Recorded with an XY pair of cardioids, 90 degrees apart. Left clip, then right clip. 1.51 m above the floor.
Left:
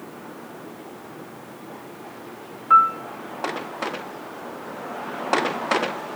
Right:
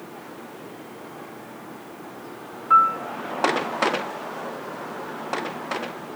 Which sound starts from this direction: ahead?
A piano, at 2.7 s.